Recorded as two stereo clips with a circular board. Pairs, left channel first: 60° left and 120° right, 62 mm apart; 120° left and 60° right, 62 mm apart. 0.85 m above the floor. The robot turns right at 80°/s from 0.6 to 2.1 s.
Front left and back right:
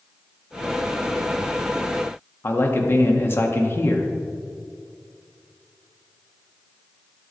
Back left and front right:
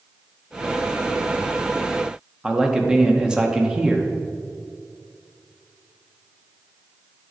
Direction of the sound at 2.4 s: 15° left.